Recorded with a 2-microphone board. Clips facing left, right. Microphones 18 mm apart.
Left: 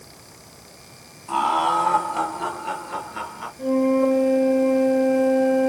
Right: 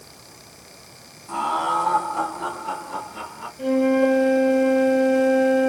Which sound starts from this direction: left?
Laughter, at 1.3 s.